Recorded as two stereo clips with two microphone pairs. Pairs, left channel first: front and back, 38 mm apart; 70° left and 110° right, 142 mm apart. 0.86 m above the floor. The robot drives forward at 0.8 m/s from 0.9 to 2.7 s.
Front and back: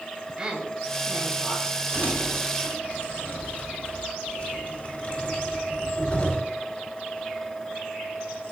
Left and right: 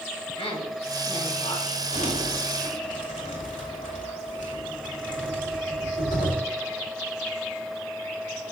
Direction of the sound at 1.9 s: 50° left.